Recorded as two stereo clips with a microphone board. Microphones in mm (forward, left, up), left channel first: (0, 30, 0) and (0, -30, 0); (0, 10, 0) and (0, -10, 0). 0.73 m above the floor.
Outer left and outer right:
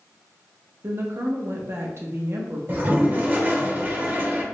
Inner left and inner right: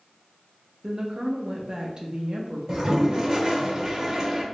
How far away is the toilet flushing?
About 0.7 m.